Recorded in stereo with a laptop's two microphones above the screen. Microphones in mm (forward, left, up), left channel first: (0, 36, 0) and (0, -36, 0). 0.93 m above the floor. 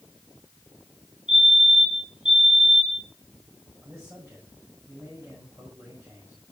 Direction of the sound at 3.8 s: 40° right (ahead or behind).